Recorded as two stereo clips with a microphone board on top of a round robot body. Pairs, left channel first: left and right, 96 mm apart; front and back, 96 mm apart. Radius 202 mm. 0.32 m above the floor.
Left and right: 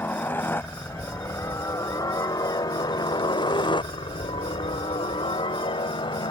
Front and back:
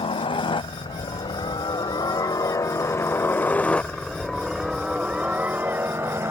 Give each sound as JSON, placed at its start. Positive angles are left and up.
{"t": 0.0, "sound": "a helicopter", "azimuth_deg": 20}